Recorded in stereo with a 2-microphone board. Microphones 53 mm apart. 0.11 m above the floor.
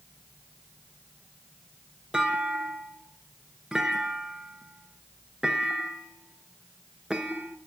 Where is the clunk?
10° right (ahead or behind), 0.7 m.